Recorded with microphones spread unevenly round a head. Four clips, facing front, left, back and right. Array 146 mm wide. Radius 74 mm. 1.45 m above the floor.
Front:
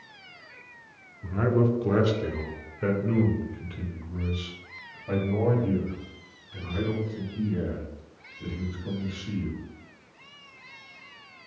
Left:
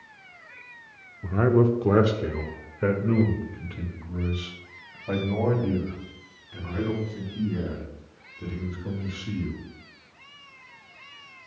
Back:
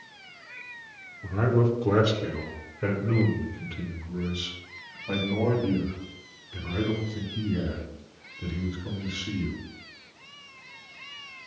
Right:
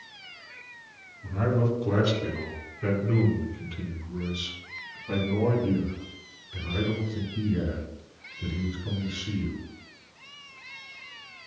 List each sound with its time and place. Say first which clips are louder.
1.2 s a man speaking: left 6 dB, even; 105° left, 1.0 m; by 9.6 s 80° left, 5 m